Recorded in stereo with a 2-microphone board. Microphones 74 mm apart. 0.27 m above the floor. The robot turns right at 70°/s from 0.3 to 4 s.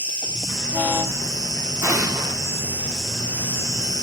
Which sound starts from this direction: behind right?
An explosion, at 1.8 s.